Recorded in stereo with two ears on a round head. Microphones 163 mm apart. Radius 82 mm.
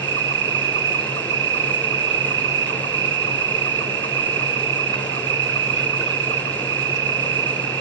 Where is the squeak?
I don't hear a squeak.